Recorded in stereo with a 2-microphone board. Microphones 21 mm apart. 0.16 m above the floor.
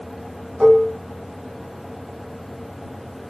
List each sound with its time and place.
0.6 s dishes clattering: 25° right (ahead or behind), 0.8 m